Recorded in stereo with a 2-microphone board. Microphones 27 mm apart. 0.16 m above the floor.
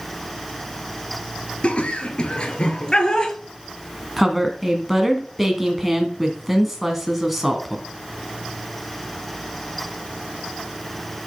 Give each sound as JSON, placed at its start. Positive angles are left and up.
{"t": 1.6, "sound": "laughter", "side_deg": 45, "distance_m": 3.0}
{"t": 4.2, "sound": "a woman speaking", "side_deg": -5, "distance_m": 1.7}